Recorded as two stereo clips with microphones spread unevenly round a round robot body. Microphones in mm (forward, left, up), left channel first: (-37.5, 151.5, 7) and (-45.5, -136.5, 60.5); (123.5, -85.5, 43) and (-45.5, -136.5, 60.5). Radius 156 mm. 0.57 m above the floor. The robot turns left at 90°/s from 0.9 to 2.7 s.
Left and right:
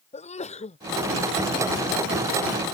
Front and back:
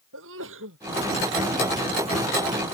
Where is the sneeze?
155° left.